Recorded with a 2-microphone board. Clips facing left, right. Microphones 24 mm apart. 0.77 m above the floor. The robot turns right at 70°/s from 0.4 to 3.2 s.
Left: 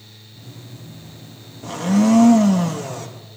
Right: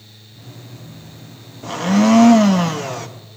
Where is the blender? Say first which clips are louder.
Right 2 dB; 150° right, 0.9 m; by 3.1 s 50° right, 0.9 m.